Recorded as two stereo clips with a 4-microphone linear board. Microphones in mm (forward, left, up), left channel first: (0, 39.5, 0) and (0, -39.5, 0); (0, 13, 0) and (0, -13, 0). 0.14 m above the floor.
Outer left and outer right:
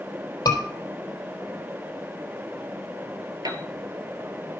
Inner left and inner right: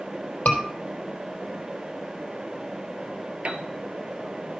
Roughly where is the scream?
Left.